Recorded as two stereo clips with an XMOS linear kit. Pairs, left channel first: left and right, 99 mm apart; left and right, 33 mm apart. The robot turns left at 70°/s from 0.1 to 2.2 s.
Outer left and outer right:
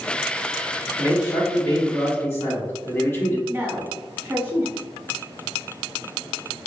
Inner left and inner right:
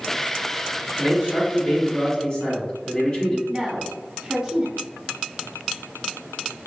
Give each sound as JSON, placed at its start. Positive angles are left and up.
{"t": 1.0, "sound": "a man speaking", "azimuth_deg": 125, "distance_m": 1.3}
{"t": 3.5, "sound": "a woman speaking", "side_deg": -25, "distance_m": 1.2}